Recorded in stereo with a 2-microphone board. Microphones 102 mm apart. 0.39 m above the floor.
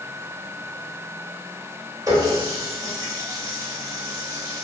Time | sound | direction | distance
2.1 | a running tap | 35° right (ahead or behind) | 0.9 m